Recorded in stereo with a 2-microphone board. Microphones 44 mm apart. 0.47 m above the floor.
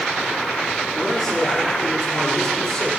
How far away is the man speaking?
About 6.5 m.